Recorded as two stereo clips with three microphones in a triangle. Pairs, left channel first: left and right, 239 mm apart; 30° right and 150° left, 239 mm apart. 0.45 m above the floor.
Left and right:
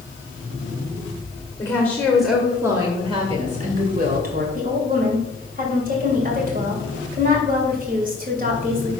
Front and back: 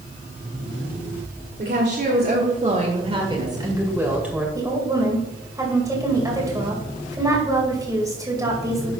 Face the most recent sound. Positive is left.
turn(degrees=-135)